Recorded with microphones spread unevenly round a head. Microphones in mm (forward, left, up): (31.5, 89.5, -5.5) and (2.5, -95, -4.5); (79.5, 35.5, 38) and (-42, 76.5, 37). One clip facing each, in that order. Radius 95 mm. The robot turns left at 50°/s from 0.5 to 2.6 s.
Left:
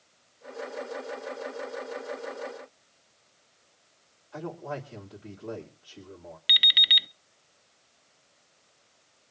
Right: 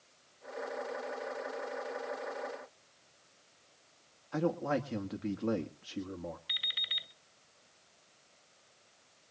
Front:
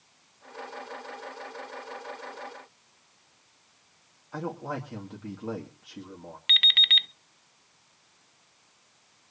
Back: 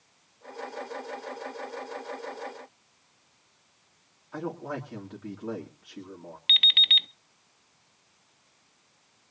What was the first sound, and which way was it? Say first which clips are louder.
A man speaking: right 5 dB, even; 100° right.